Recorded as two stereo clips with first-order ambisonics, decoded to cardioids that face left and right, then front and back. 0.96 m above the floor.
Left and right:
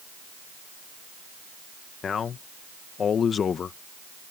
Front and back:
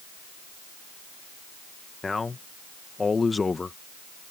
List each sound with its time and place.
2.0 s a man speaking: 65° left